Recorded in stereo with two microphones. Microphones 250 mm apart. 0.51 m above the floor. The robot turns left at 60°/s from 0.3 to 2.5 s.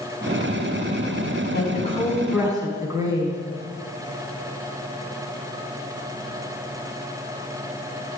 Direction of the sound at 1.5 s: 45° left.